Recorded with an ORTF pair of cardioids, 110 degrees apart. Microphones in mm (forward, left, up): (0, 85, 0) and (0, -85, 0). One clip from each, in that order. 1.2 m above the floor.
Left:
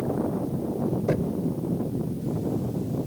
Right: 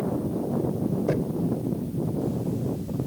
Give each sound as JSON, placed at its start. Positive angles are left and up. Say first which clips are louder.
{"t": 1.1, "sound": "knocking", "louder": "even", "azimuth_deg": 5}